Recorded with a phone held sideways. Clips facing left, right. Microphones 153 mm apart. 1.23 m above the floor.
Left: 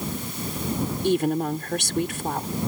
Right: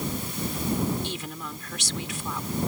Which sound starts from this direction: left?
A woman speaking, at 1.0 s.